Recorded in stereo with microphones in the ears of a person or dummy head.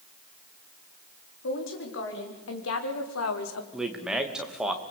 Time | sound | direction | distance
1.4 | a woman speaking | 60° left (ahead or behind) | 4.5 m
3.7 | a man speaking | 5° right (ahead or behind) | 2.5 m